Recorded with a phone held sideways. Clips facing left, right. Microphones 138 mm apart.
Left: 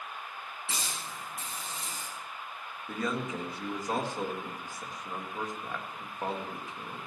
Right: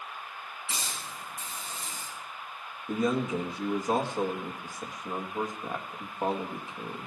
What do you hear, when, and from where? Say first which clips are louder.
0.7 s a hiss: even; 85° left, 8.5 m
2.9 s a man speaking: right 6 dB; 20° right (ahead or behind), 1.6 m